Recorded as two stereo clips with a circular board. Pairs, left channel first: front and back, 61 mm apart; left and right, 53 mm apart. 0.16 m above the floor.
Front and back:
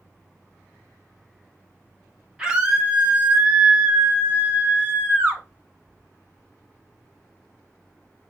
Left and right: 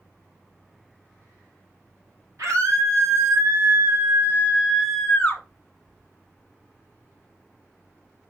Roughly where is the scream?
Right.